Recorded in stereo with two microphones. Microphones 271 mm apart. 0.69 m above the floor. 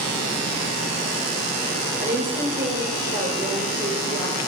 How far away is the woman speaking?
About 2 m.